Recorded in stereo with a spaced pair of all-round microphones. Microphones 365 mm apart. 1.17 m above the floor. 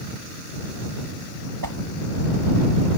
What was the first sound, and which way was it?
A whoosh, 65° right (ahead or behind).